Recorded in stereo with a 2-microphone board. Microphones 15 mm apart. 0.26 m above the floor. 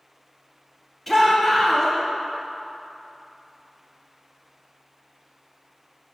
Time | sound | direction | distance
1.1 | a shout | 10° left (ahead or behind) | 1.1 m